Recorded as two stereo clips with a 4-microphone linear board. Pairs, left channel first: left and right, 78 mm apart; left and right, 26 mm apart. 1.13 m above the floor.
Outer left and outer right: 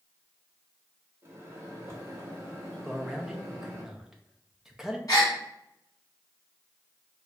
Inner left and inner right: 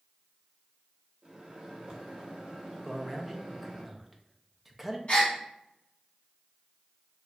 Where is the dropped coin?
No dropped coin in this recording.